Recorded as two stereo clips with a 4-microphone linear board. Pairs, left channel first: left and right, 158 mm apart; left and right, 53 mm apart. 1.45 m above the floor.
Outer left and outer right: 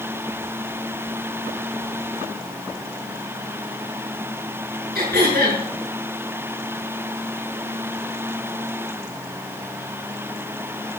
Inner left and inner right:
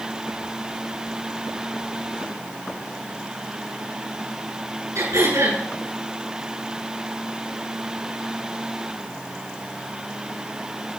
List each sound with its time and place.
5.0 s throat clearing: 80° right, 6.5 m